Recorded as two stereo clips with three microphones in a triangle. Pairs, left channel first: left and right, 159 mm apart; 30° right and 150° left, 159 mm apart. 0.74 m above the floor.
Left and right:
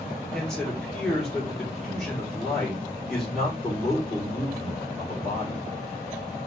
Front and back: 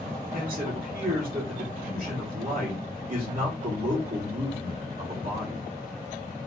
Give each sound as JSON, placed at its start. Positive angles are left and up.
{"t": 0.3, "sound": "a man speaking", "azimuth_deg": 175, "distance_m": 1.6}